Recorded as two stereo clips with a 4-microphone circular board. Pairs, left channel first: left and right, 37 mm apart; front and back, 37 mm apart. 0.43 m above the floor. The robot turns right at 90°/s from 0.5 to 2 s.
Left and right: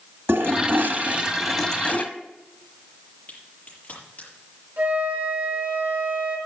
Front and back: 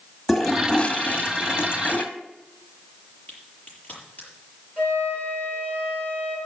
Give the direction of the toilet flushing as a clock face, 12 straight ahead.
3 o'clock.